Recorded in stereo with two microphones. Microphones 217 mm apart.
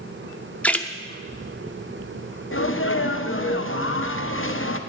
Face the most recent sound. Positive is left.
turn(degrees=60)  # may be behind; listen again after turning